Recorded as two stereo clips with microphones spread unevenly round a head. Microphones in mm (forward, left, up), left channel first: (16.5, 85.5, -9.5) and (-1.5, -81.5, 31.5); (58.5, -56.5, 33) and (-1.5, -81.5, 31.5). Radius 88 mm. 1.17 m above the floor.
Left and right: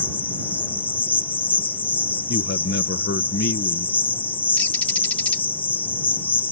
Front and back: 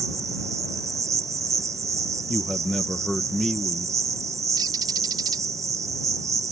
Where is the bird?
165° left.